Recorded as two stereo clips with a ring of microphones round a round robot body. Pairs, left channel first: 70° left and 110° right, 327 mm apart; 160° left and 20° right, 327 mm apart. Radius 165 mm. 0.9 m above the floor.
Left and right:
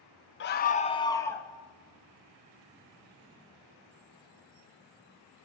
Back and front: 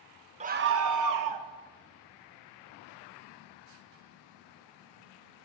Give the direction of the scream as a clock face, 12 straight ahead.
11 o'clock.